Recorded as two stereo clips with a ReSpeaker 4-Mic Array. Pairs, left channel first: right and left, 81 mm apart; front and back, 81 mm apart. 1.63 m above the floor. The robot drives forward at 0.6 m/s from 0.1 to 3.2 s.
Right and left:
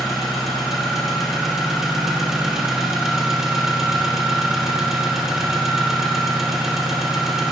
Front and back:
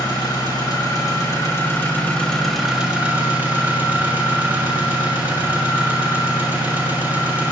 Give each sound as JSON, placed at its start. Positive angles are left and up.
{"t": 0.0, "sound": "an engine running", "azimuth_deg": 5, "distance_m": 1.7}